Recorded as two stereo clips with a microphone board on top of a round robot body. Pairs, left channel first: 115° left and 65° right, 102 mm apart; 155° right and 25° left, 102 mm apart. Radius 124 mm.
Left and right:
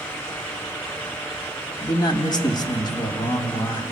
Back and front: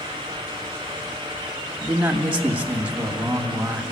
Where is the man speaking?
95° left, 1.6 m.